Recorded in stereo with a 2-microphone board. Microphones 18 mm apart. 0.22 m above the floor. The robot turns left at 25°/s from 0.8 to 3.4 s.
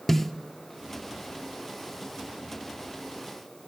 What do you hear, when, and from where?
0.1 s a snare drum: 15° left (ahead or behind), 0.7 m